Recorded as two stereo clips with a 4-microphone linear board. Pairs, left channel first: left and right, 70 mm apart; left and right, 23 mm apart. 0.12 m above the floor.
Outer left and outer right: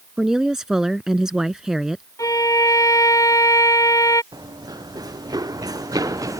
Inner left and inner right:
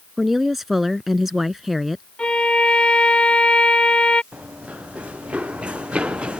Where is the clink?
I don't hear a clink.